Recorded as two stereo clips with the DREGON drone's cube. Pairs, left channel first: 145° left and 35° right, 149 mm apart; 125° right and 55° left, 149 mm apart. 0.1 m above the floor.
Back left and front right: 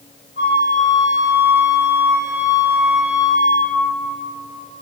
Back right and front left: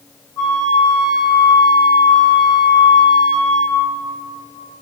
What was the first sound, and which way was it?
A flute, 65° right.